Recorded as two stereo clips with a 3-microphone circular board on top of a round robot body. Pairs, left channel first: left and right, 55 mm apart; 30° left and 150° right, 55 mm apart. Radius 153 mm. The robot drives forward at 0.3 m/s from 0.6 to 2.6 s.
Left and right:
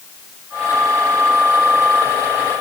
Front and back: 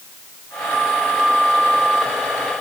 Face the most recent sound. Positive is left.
No sound to turn to.